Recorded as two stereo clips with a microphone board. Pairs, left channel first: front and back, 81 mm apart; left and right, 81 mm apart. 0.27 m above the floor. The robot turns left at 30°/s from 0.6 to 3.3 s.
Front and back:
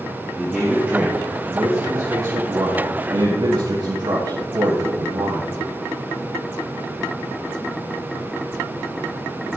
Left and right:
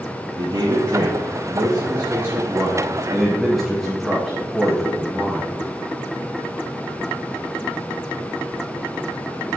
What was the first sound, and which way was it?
A man speaking, 100° right.